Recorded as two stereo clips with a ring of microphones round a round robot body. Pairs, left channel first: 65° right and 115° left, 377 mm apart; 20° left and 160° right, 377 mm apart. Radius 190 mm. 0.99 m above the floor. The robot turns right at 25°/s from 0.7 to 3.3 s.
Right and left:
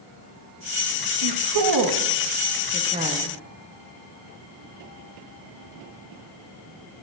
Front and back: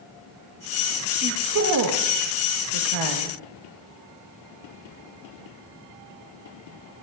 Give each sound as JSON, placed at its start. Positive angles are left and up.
{"t": 1.2, "sound": "a woman speaking", "azimuth_deg": 140, "distance_m": 1.2}